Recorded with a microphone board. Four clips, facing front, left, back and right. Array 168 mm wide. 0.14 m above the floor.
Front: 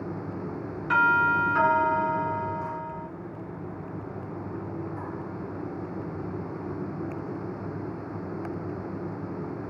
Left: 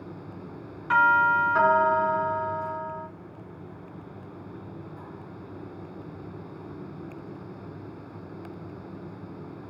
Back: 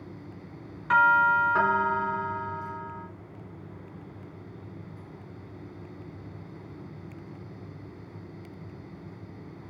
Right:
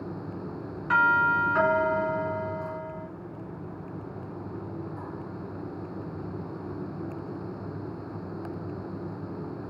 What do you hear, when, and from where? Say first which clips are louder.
0.9 s a doorbell: left 2 dB, back 1 dB; 140° left, 2 m